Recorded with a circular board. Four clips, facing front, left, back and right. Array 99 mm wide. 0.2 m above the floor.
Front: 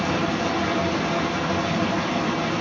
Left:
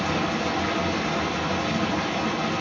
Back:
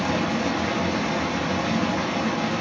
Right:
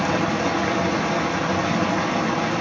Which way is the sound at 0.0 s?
80° right.